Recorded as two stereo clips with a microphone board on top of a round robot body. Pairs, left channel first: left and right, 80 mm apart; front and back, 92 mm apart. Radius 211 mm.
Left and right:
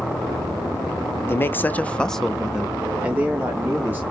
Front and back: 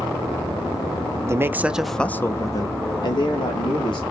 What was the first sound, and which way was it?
A man speaking, 135° left.